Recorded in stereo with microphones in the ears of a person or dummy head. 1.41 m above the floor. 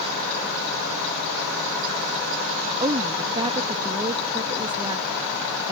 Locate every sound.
2.8 s a woman speaking: 25° right (ahead or behind)